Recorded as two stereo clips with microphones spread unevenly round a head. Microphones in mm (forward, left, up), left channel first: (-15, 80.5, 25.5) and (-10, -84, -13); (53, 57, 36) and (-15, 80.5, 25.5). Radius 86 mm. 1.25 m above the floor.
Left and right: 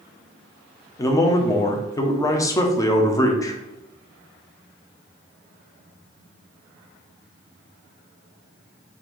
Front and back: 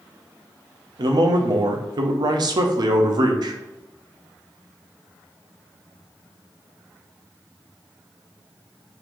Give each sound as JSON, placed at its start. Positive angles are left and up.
{"t": 1.0, "sound": "a man speaking", "azimuth_deg": 165, "distance_m": 0.6}